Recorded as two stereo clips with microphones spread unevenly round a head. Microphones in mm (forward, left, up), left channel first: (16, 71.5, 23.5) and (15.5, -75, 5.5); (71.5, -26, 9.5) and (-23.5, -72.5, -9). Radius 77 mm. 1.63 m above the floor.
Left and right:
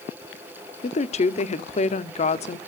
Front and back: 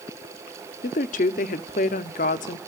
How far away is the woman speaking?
About 0.8 m.